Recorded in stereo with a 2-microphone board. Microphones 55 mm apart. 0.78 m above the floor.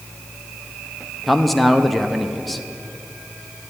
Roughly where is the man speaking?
Centre.